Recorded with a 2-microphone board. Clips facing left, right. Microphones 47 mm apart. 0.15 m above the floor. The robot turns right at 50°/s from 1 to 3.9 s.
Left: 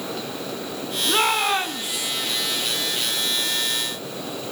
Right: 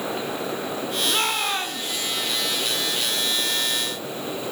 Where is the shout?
20° left (ahead or behind), 1.0 m; by 2.1 s 10° left (ahead or behind), 1.0 m.